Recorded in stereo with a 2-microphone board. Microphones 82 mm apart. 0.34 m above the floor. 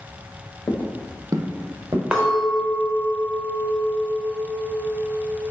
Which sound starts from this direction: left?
Footsteps, at 0.7 s.